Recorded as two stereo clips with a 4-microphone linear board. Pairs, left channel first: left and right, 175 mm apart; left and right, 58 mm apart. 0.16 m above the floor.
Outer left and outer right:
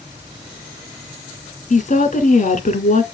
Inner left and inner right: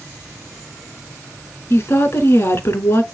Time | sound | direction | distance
1.7 | a woman speaking | 45° left (ahead or behind) | 1.5 m